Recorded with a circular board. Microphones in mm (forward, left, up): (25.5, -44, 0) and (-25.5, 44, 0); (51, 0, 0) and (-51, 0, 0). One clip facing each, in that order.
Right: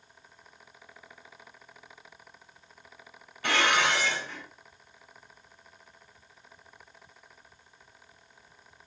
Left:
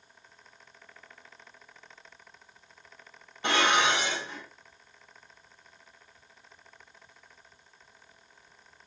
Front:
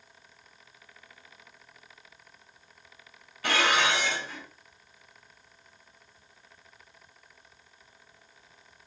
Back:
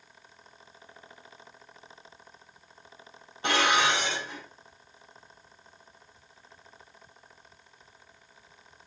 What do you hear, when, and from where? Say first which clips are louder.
3.4 s dishes clattering: left 1 dB, back 1 dB; 155° left, 0.8 m